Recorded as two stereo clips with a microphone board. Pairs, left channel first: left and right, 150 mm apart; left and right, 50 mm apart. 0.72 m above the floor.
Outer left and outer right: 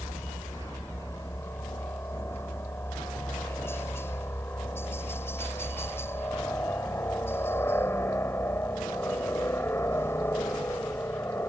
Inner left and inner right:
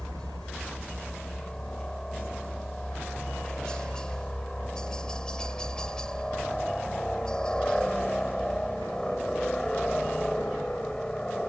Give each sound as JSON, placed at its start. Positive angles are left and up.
{"t": 0.0, "sound": "a helicopter", "side_deg": 15}